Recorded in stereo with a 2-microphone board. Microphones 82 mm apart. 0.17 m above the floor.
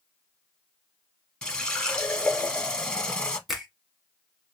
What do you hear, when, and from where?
1.4 s a running tap: 10° left (ahead or behind), 0.8 m
3.5 s a finger snap: 5° right (ahead or behind), 1.3 m